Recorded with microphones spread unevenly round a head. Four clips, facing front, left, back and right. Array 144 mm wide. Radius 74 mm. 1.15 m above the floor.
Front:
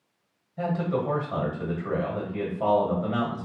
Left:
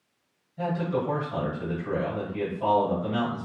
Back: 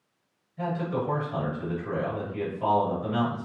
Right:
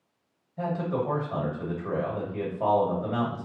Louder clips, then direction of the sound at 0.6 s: Left 1 dB, front 2 dB; 45° right.